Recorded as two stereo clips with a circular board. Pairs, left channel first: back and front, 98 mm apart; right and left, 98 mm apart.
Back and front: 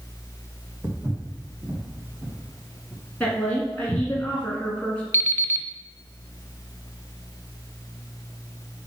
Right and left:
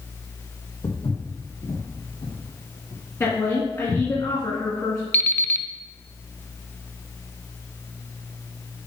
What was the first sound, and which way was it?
Footsteps, 65° right.